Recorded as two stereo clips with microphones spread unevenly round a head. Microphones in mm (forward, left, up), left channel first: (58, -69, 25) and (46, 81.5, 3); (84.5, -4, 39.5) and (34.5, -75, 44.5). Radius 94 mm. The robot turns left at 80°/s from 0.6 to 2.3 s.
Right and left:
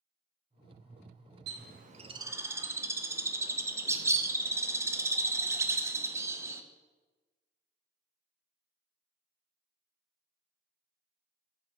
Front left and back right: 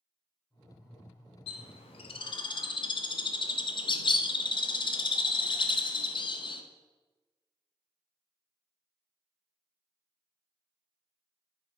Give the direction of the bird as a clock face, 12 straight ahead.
9 o'clock.